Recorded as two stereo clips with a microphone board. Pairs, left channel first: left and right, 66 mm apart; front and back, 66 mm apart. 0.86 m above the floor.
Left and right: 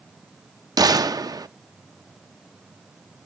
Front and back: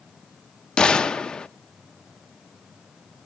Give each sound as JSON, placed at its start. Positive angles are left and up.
{"t": 0.8, "sound": "a gunshot", "azimuth_deg": -75, "distance_m": 0.5}